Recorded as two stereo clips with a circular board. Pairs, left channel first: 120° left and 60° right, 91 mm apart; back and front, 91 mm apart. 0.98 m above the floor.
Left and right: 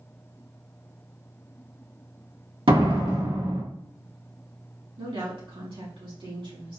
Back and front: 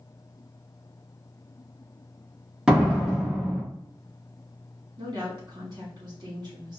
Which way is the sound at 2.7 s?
80° right.